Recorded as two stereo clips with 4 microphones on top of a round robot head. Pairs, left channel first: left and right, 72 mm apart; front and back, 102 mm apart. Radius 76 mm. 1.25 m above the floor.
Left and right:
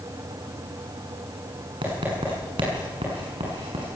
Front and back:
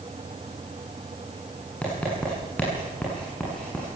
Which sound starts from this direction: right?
Writing, at 1.8 s.